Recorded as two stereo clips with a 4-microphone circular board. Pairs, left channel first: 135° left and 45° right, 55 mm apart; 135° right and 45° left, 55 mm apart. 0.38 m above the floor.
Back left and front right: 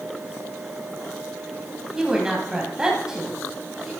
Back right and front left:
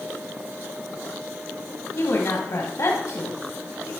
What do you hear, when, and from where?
1.9 s a woman speaking: 120° right, 2.5 m